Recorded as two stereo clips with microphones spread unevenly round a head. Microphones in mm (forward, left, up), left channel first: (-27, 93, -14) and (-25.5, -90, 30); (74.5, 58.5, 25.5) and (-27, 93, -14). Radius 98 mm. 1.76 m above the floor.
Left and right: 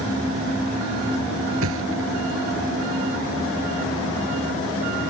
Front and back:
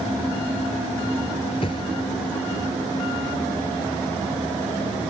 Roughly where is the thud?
Right.